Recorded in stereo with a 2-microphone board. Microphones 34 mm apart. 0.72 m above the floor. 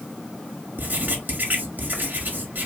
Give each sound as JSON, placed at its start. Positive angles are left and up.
{"t": 0.8, "sound": "writing", "side_deg": -55, "distance_m": 1.8}